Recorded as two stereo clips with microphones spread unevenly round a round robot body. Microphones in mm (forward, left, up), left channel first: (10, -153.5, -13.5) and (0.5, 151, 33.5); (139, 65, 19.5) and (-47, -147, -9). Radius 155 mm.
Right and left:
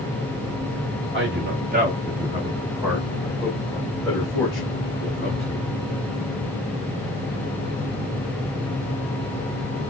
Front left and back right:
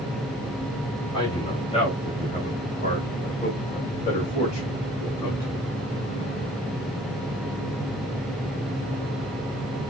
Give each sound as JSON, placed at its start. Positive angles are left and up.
{"t": 1.1, "sound": "a man speaking", "azimuth_deg": 125, "distance_m": 1.2}